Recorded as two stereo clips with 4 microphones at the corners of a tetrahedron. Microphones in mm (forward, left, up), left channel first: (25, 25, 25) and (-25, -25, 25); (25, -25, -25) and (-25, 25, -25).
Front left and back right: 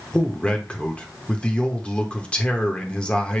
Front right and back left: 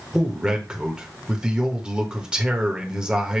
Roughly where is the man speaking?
Left.